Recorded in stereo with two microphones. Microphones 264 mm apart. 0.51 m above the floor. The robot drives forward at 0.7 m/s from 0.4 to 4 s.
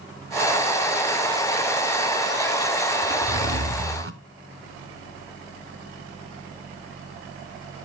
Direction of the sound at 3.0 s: 80° right.